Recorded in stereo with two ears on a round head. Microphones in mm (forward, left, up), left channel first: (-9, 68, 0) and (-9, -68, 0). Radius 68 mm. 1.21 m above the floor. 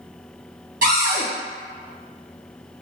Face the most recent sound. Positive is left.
turn(degrees=-60)  # may be behind; listen again after turning